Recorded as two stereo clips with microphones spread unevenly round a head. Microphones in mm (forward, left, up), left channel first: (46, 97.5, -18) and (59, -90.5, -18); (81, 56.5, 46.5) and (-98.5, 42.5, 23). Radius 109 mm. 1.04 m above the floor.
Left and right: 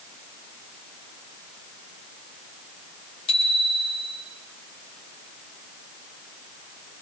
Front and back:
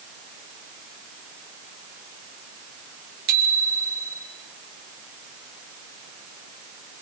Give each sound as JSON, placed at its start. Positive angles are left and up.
{"t": 3.3, "sound": "a bicycle bell", "azimuth_deg": 160, "distance_m": 6.0}